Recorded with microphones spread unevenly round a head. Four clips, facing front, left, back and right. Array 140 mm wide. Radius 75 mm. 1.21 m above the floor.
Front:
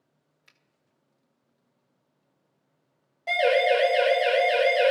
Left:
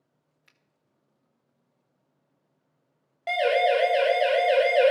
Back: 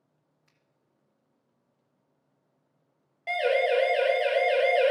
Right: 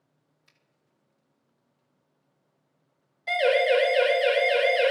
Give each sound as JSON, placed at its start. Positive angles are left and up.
{"t": 0.5, "sound": "a finger snap", "azimuth_deg": 30, "distance_m": 2.5}
{"t": 3.3, "sound": "a siren", "azimuth_deg": 100, "distance_m": 5.0}